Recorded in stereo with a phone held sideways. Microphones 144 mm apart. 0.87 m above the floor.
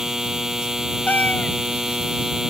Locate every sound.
0.0 s a machine running: 5° right (ahead or behind)
1.1 s a cat meowing: 10° left (ahead or behind)